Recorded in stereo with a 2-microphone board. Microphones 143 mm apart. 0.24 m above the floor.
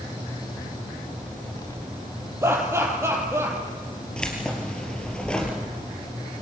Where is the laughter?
20° right (ahead or behind), 7 m.